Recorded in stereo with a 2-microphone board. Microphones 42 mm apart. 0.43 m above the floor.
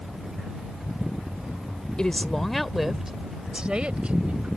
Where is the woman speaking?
20° left (ahead or behind); by 4.5 s 35° right (ahead or behind).